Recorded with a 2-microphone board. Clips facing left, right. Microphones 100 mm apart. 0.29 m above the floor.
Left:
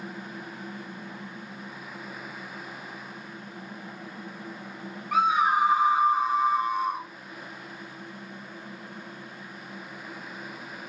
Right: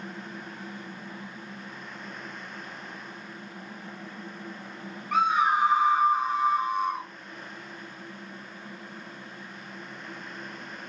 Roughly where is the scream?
Centre.